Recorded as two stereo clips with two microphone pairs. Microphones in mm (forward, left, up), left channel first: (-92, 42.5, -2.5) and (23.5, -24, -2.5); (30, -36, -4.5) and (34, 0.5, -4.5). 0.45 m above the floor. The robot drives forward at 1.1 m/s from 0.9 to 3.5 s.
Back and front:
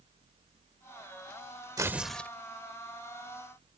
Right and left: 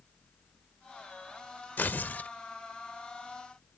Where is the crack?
No crack in this recording.